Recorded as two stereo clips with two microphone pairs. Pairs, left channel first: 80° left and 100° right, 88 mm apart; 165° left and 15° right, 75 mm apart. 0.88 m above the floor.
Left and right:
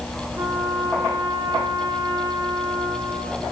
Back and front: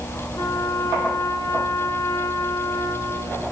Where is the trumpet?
155° right, 7.5 m.